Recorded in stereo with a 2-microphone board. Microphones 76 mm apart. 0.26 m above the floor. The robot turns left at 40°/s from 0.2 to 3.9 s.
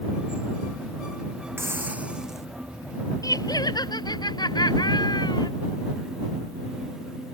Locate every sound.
1.6 s a hiss: 145° right; by 2.5 s straight behind
3.2 s laughter: 55° left (ahead or behind); by 5.5 s 75° left (ahead or behind)